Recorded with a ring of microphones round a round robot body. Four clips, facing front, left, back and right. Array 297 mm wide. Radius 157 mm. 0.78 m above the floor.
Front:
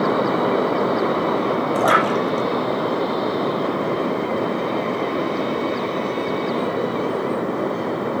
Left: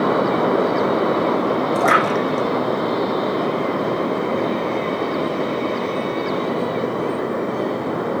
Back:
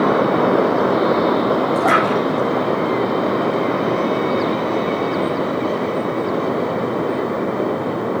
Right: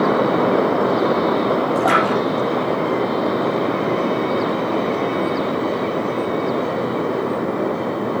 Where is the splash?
40° left, 3.5 m.